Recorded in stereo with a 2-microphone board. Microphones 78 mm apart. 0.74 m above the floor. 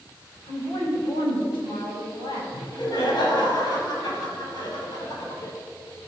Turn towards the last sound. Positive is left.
turn(degrees=70)  # may be behind; listen again after turning